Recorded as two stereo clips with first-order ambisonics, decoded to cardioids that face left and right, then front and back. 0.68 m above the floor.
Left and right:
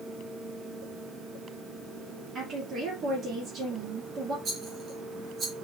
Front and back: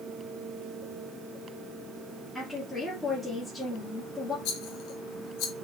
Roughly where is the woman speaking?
Right.